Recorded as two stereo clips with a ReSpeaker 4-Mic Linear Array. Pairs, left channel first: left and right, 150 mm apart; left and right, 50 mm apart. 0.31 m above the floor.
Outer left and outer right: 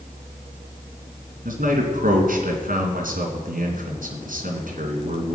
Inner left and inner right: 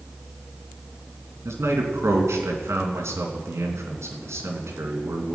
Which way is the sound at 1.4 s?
70° right (ahead or behind).